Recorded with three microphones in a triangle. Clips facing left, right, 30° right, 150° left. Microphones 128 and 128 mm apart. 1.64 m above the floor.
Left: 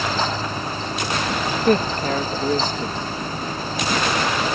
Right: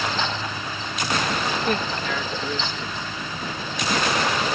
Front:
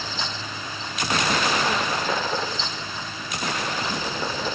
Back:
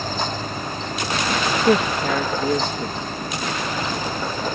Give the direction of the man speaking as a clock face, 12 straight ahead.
7 o'clock.